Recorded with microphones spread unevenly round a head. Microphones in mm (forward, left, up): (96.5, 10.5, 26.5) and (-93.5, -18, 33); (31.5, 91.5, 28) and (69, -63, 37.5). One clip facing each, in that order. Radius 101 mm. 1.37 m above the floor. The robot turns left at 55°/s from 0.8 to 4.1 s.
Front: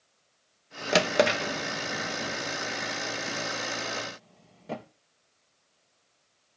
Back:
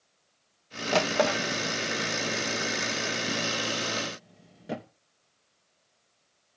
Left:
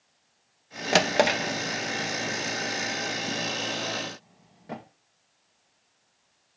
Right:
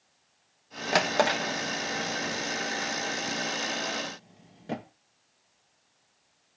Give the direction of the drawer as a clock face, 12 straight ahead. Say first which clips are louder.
Front 2 dB, left 3 dB; 10 o'clock.